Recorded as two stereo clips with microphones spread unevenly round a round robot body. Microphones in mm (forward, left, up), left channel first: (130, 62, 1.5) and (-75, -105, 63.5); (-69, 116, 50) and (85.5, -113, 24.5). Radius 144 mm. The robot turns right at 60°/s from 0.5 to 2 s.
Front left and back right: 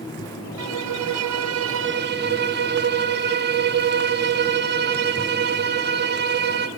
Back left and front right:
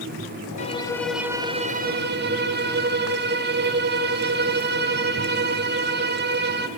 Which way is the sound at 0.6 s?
175° right.